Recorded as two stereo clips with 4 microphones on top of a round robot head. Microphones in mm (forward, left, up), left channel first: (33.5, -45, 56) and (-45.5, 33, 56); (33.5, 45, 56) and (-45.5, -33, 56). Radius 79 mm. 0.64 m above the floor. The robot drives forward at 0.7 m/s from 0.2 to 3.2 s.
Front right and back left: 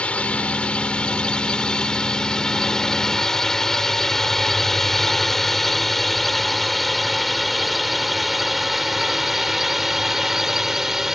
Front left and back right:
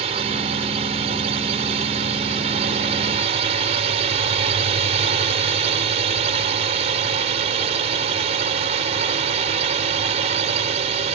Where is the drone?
125° right; by 11.2 s 140° right.